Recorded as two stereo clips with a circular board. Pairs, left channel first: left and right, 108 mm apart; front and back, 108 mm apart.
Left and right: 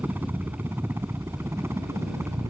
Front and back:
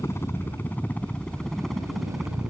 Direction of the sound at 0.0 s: 35° right.